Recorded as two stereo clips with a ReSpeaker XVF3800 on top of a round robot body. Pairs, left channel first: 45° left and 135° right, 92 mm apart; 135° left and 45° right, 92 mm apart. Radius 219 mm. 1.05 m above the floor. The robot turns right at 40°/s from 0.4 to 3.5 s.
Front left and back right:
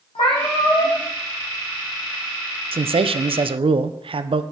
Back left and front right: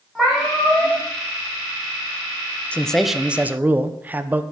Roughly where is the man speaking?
Behind right.